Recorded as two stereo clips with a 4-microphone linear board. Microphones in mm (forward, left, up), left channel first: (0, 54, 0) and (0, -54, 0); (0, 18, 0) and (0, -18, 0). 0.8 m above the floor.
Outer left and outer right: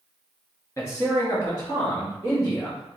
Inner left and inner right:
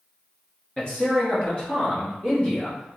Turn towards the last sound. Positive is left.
turn(degrees=35)  # may be behind; listen again after turning